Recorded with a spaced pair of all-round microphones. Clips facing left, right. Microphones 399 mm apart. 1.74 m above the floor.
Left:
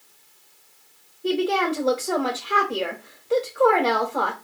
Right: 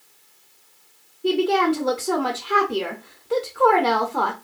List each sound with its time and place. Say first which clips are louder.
1.2 s a woman speaking: right 3 dB; 25° right (ahead or behind), 0.6 m